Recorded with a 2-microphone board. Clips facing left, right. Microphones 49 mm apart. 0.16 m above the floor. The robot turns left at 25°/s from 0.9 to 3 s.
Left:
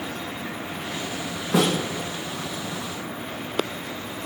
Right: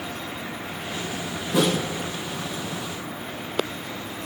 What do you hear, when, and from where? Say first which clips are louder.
1.5 s a snare drum: even; 75° left (ahead or behind), 8.5 m; by 1.8 s 80° left, 8.5 m